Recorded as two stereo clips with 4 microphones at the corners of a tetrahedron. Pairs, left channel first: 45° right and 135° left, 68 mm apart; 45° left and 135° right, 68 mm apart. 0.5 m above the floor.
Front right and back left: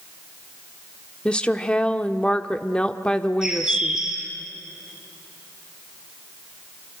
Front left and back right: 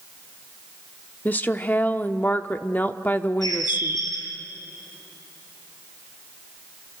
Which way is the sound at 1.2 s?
10° left.